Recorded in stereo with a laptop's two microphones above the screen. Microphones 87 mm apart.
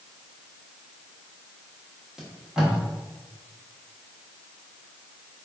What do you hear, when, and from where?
2.2 s tape being pulled: 5° right (ahead or behind), 0.9 m